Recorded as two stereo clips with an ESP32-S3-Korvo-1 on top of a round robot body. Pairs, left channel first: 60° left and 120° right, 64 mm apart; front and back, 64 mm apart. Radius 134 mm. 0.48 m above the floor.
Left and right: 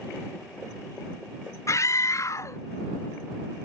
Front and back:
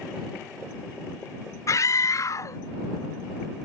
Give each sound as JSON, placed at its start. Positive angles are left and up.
{"t": 1.7, "sound": "a scream", "azimuth_deg": 25}